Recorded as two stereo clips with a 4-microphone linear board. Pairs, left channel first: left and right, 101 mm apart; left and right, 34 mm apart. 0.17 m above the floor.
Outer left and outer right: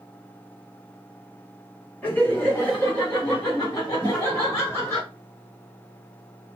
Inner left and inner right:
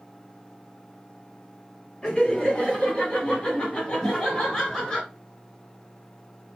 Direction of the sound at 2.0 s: 20° left (ahead or behind).